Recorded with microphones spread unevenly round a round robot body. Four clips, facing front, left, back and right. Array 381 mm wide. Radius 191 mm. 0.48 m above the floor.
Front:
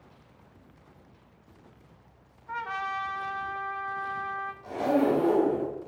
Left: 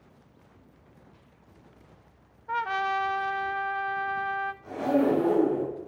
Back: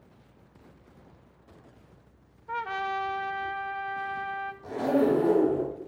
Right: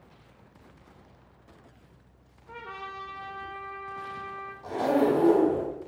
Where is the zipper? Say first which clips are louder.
Right 1 dB, even; 150° right, 4.5 m.